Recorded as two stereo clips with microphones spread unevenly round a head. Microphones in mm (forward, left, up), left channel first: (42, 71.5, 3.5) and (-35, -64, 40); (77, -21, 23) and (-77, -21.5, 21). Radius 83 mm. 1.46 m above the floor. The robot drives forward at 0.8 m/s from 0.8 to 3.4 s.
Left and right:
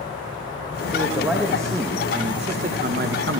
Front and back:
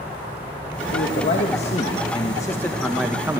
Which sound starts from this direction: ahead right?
A man speaking, at 0.9 s.